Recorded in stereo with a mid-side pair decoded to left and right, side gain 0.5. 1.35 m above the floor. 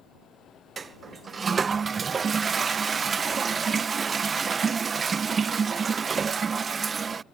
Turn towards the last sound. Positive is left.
turn(degrees=-40)